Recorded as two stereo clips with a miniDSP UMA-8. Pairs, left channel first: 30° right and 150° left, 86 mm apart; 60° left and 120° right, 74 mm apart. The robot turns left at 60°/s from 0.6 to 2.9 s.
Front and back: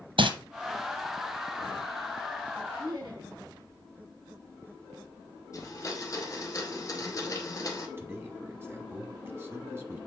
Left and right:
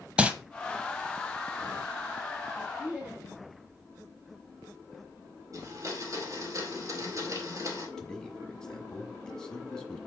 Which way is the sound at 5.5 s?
80° right.